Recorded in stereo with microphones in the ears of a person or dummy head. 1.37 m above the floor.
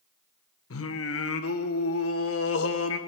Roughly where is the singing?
Left.